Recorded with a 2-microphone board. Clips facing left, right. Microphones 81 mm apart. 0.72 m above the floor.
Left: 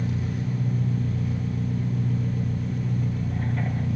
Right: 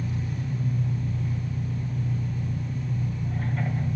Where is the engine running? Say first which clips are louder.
Left 3 dB; 75° left (ahead or behind), 6.5 m.